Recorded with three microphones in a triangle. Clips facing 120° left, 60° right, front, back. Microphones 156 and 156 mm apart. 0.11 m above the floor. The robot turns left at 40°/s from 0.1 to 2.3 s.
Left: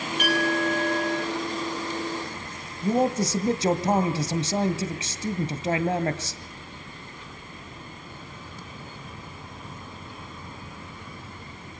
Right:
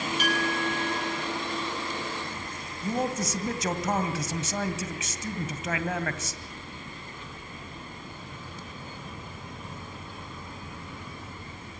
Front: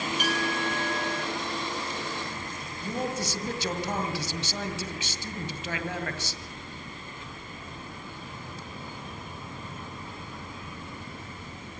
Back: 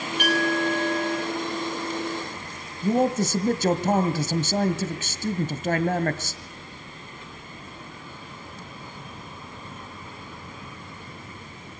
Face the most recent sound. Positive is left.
turn(degrees=165)